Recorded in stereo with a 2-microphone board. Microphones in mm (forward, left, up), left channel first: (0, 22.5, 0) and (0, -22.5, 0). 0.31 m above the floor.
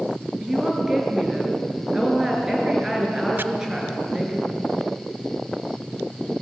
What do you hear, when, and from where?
0.4 s a woman speaking: 15° right (ahead or behind), 5.5 m
3.4 s chopping: 60° right (ahead or behind), 0.7 m